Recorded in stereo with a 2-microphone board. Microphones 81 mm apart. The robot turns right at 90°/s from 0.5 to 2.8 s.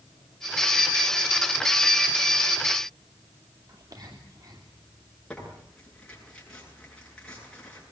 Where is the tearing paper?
10° left (ahead or behind), 8.5 m.